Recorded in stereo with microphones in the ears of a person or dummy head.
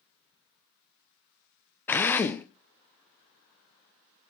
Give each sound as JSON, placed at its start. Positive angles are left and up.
{"t": 1.9, "sound": "a drill", "side_deg": 5, "distance_m": 0.6}